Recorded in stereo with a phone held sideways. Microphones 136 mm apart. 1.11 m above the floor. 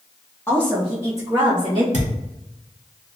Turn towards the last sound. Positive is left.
turn(degrees=-70)  # may be behind; listen again after turning